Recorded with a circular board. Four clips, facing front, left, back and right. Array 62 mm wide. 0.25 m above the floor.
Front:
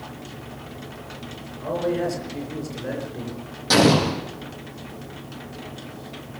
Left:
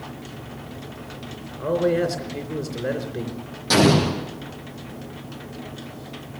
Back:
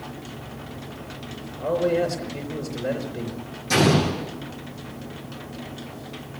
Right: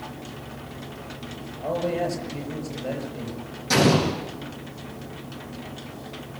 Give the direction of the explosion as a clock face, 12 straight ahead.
11 o'clock.